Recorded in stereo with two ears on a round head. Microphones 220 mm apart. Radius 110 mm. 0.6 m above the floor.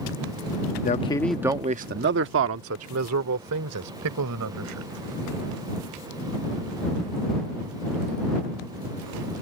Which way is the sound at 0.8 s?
35° left (ahead or behind).